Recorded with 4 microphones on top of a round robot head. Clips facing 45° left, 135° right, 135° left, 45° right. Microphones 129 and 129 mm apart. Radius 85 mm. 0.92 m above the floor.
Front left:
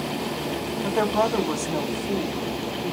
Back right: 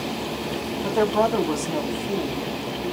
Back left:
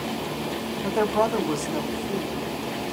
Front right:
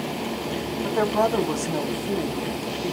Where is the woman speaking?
160° left, 0.8 m; by 2.9 s 50° right, 1.2 m.